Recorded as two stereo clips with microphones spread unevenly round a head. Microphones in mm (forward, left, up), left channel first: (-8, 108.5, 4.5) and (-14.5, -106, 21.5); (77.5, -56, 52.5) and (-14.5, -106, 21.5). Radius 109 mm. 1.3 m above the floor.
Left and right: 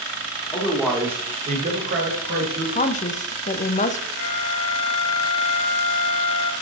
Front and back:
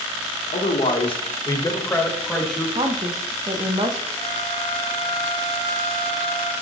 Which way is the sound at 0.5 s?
15° left.